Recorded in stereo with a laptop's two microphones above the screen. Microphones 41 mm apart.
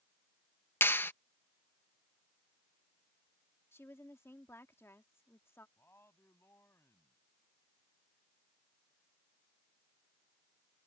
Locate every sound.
0.8 s a clap: 60° left (ahead or behind)
3.7 s a woman speaking: 90° left
5.8 s a man speaking: 85° left